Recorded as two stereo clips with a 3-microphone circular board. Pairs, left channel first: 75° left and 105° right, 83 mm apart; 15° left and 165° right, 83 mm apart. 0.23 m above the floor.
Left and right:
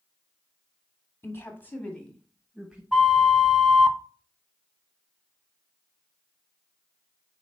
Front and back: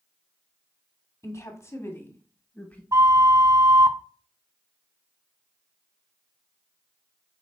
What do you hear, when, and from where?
1.2 s a woman speaking: 35° left, 1.2 m; by 2.8 s 40° right, 1.0 m
2.9 s a flute: 165° left, 0.5 m